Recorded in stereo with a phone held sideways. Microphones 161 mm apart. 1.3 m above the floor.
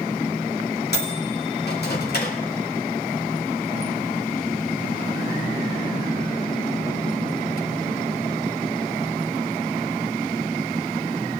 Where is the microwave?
85° left, 2.5 m.